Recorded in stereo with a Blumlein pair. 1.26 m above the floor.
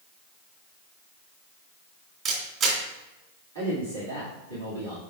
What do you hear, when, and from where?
2.2 s a camera shutter: 35° right, 2.5 m
3.5 s a man speaking: 70° right, 2.5 m